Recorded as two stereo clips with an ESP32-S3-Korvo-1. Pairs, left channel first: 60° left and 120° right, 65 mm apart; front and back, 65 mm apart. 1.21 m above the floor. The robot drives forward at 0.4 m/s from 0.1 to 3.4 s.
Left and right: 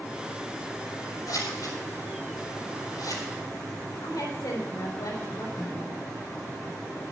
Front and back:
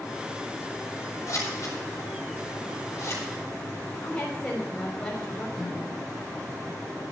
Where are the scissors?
40° left, 6.5 m; by 3.2 s 45° left, 6 m.